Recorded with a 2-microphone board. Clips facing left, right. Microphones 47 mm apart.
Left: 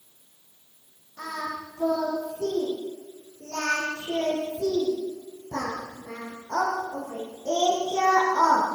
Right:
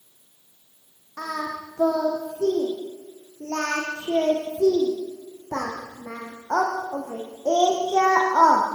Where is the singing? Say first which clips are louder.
Right 3 dB; 65° right (ahead or behind), 7 m.